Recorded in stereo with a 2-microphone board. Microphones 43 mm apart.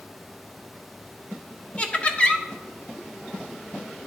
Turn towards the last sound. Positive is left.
turn(degrees=25)  # may be behind; listen again after turning